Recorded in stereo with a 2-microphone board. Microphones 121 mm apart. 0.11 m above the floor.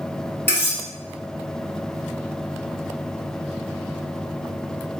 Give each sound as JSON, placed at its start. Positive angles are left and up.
{"t": 0.5, "sound": "cutlery clinking", "side_deg": 15, "distance_m": 1.2}